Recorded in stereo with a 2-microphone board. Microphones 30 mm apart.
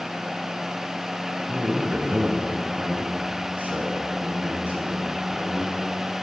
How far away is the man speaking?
About 8 m.